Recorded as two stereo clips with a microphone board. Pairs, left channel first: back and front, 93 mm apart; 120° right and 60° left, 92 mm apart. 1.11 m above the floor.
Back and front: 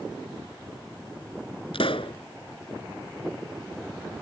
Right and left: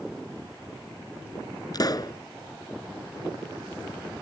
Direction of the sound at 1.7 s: 165° right.